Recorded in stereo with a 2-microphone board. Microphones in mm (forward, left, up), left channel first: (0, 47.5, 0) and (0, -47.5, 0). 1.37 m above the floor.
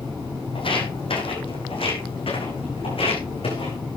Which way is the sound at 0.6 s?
70° left (ahead or behind).